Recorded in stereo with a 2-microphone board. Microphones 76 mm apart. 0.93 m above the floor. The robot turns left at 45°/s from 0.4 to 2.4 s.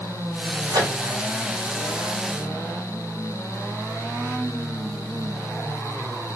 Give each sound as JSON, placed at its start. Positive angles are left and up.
{"t": 0.7, "sound": "a microwave", "side_deg": -60, "distance_m": 1.9}